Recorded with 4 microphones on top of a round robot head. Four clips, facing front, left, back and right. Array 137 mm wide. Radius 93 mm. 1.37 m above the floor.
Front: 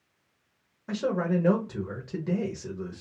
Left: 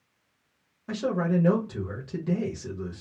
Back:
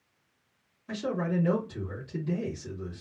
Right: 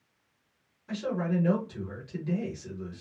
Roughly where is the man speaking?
Ahead left.